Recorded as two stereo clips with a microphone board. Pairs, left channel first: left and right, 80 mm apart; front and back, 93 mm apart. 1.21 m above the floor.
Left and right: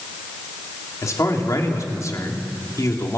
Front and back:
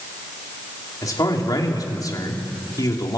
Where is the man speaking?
45° left, 3 m.